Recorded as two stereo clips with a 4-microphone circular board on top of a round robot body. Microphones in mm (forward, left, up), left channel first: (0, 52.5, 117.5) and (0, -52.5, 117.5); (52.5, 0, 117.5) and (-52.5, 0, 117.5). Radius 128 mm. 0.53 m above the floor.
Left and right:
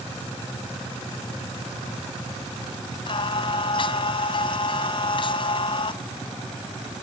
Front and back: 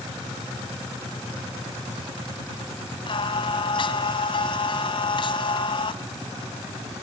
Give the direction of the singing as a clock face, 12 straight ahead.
10 o'clock.